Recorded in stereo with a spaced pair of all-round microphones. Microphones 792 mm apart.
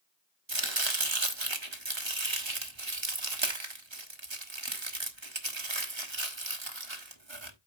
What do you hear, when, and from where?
0.5 s chopping: 35° right (ahead or behind), 1.3 m